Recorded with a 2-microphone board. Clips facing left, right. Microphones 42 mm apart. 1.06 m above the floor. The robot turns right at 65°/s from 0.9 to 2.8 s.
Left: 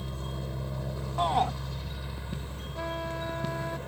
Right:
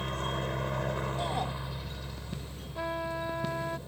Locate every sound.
0.0 s a helicopter: 65° right; by 3.9 s 60° left
1.2 s a shout: 70° left (ahead or behind); by 1.5 s 65° left (ahead or behind)
2.8 s a trumpet: 15° right (ahead or behind); by 3.8 s 10° right (ahead or behind)